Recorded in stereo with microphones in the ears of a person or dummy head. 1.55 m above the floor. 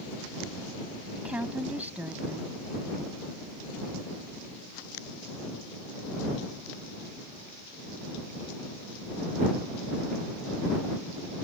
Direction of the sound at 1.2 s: 10° right (ahead or behind).